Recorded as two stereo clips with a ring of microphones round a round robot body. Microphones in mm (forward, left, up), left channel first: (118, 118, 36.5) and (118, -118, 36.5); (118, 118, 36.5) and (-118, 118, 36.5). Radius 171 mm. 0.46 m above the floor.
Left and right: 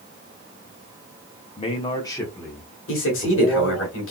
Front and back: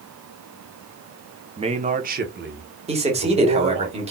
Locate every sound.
1.6 s a man speaking: 130° left, 0.9 m; by 3.9 s 175° right, 1.6 m
2.9 s a man speaking: 120° left, 1.8 m